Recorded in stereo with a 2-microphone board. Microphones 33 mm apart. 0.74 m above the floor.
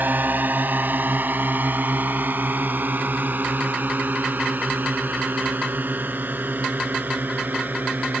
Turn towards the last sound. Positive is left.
turn(degrees=-80)